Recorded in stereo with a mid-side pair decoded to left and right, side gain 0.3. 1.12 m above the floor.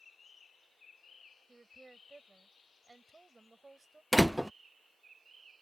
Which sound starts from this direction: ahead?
A door slam, at 4.1 s.